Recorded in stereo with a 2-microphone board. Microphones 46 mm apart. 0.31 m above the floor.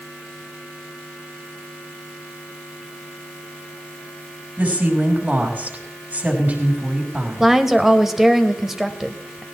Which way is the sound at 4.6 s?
40° right (ahead or behind).